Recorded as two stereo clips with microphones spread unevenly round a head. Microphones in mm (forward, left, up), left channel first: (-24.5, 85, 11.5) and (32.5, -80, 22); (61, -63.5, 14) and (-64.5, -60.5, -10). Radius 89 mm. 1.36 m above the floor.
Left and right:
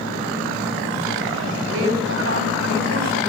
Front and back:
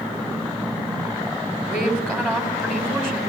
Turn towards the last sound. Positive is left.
turn(degrees=-85)